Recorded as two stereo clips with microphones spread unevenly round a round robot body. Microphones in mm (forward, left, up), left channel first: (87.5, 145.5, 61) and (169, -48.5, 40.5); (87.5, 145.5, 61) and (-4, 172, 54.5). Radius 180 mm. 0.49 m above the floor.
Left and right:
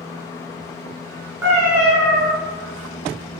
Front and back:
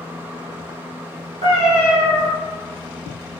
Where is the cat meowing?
155° right, 0.7 m.